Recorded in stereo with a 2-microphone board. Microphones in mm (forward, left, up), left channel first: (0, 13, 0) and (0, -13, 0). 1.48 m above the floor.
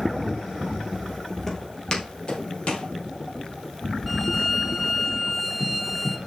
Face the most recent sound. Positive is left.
turn(degrees=0)  # may be behind; listen again after turning